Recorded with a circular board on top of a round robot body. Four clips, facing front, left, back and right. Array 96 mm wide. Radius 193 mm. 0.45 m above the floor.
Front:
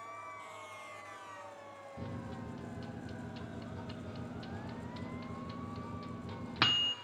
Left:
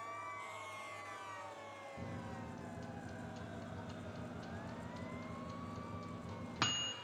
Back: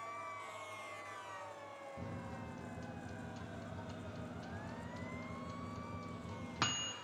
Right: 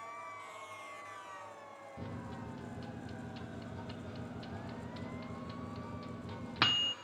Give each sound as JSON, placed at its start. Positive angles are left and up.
{"t": 2.0, "sound": "a microwave", "azimuth_deg": -45, "distance_m": 0.5}